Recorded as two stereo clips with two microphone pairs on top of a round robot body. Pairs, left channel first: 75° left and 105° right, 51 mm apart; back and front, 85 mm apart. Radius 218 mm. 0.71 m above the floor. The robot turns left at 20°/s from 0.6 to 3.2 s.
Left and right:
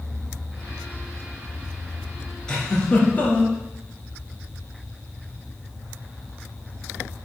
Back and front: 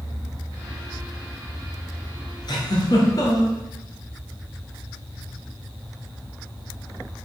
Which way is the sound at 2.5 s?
155° left.